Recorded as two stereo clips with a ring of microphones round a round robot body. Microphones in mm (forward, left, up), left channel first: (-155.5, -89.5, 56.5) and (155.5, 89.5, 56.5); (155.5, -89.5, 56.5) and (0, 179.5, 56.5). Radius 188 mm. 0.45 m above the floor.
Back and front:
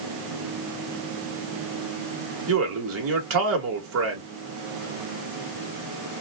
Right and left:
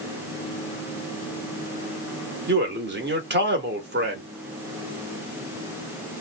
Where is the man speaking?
70° left, 1.3 m.